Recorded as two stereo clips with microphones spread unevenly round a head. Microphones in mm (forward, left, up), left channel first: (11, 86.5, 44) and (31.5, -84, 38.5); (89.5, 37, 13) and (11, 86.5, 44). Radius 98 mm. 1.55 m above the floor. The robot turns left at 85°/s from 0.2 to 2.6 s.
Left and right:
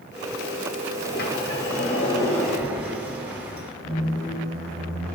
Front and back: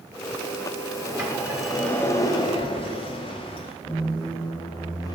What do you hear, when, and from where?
1.0 s a sliding door: 135° left, 1.3 m; by 3.7 s straight ahead, 1.3 m
3.8 s a squeak: 20° left, 1.7 m